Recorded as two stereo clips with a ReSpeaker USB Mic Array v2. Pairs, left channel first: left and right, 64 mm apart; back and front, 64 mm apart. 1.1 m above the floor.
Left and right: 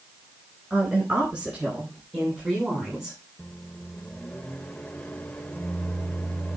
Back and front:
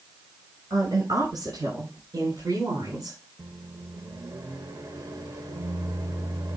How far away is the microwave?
About 1.1 m.